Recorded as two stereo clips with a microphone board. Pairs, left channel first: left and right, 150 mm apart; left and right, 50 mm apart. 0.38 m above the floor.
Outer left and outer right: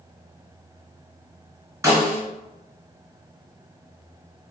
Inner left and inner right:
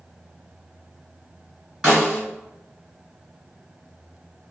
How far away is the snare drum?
About 1.7 m.